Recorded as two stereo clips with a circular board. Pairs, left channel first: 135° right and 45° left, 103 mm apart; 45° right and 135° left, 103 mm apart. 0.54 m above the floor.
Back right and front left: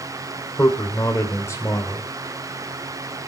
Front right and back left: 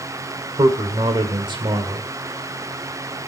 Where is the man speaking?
165° left, 1.7 m.